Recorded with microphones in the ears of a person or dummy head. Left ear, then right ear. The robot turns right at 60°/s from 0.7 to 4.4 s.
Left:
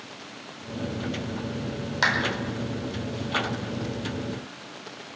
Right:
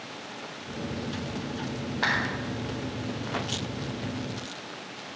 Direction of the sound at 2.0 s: 75° left (ahead or behind).